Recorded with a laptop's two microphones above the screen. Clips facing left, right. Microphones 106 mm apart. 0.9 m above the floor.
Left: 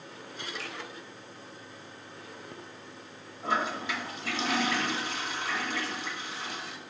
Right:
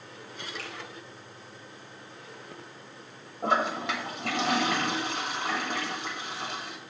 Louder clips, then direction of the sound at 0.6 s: Even; 85° right.